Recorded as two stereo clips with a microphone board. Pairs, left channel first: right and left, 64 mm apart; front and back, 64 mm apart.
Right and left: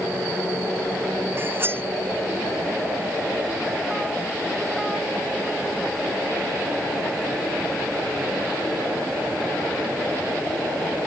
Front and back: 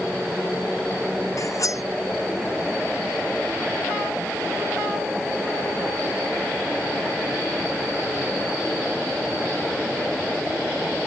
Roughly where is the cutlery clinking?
Ahead left.